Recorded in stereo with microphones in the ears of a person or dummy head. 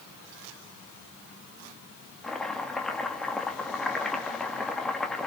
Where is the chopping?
5° left (ahead or behind), 2 m.